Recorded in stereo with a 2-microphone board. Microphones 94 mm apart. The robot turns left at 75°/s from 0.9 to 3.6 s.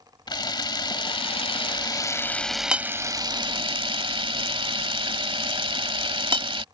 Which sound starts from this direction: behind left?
A camera shutter, at 0.3 s.